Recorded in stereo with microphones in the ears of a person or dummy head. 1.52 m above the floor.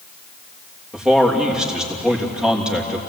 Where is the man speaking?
5° right (ahead or behind), 3 m.